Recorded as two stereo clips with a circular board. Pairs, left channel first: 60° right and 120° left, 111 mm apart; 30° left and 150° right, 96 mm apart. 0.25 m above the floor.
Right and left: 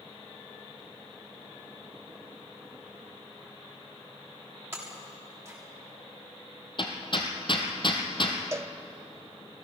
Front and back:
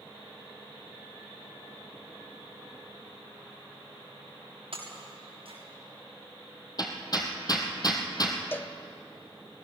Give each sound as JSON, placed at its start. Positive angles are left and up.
{"t": 4.7, "sound": "breaking glass", "azimuth_deg": -170, "distance_m": 8.0}
{"t": 6.8, "sound": "hammering", "azimuth_deg": -15, "distance_m": 2.5}
{"t": 8.5, "sound": "a cowbell", "azimuth_deg": 80, "distance_m": 0.6}